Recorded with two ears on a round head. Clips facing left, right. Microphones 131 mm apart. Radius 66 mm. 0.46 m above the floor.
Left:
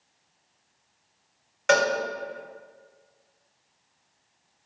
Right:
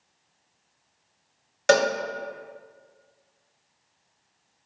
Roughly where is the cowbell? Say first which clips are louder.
Right 2 dB; right.